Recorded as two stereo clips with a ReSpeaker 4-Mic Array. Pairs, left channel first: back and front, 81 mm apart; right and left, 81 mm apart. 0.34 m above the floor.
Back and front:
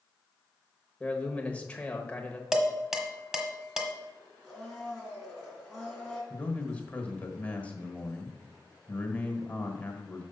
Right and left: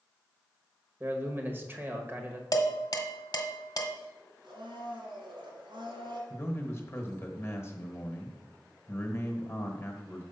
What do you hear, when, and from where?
1.0 s a man speaking: 120° left, 1.1 m
2.5 s dishes clattering: 80° right, 1.1 m
4.4 s a blender: 95° left, 3 m
6.3 s a man speaking: 120° right, 1.2 m